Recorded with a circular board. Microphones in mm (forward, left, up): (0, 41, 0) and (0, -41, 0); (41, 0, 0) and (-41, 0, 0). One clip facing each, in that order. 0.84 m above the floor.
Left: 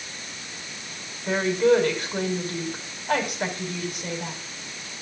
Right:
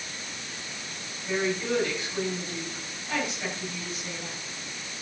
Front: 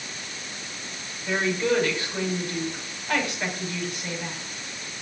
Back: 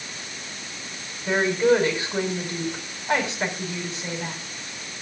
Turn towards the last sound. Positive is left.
turn(degrees=120)